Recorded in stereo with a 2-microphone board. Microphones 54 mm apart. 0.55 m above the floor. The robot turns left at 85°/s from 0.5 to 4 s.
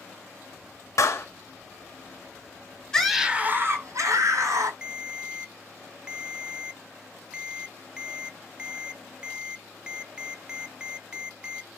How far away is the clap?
About 2 m.